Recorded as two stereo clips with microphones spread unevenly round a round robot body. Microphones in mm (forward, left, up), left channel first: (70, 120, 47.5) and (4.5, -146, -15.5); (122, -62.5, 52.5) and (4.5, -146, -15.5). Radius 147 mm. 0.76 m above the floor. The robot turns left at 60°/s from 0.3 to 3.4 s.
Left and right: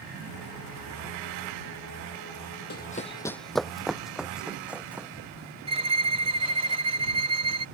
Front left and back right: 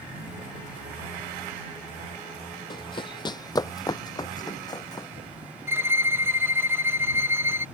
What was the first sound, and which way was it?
Running footsteps, 50° left.